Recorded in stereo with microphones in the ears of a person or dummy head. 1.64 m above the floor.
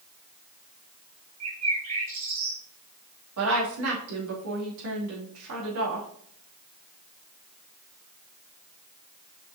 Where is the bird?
35° right (ahead or behind), 1.5 m.